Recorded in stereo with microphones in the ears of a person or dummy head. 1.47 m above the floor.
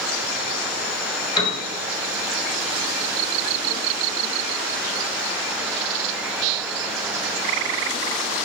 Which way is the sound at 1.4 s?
30° left (ahead or behind).